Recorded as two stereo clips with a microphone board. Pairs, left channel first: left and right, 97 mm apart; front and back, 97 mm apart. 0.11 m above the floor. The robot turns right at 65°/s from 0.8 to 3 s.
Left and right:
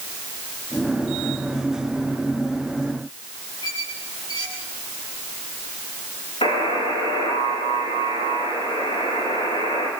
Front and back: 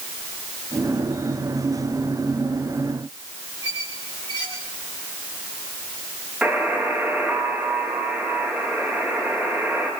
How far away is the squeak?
About 5 m.